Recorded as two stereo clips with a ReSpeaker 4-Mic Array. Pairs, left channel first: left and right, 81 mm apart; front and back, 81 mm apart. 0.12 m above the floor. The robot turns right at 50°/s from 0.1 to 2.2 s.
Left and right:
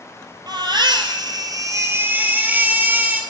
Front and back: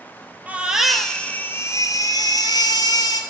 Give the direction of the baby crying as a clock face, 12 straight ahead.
4 o'clock.